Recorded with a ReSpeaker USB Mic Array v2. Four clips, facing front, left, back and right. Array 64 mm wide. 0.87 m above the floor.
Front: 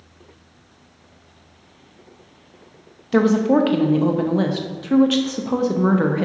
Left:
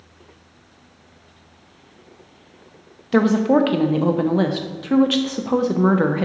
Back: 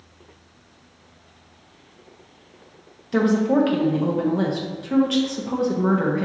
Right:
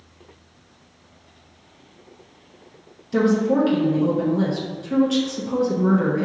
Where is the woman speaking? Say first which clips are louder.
Left 3 dB, front 3 dB; 70° left, 0.5 m.